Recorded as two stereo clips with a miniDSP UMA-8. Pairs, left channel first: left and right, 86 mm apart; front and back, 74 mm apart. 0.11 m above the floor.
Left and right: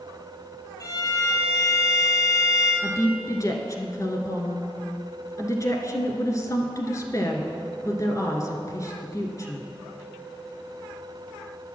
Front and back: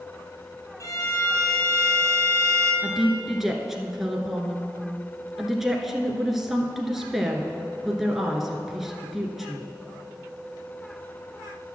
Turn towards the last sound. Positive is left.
turn(degrees=95)